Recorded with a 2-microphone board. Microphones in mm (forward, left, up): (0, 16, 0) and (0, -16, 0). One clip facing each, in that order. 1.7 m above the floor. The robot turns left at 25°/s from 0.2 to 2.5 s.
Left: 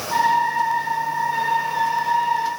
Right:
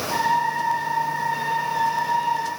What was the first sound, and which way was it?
Only background noise.